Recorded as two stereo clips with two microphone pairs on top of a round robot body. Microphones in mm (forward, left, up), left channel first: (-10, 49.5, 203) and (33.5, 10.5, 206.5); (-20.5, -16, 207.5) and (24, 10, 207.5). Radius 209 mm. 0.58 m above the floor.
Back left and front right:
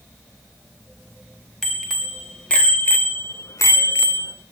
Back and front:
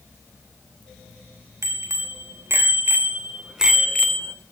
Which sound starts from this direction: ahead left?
A bicycle bell, at 1.6 s.